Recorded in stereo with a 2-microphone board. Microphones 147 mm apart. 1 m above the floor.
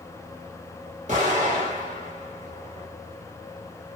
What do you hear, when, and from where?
1.1 s an explosion: 55° right (ahead or behind), 2 m